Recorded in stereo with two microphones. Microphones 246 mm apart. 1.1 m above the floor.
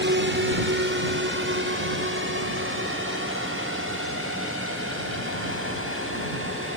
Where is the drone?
45° right (ahead or behind); by 6.8 s 55° right (ahead or behind).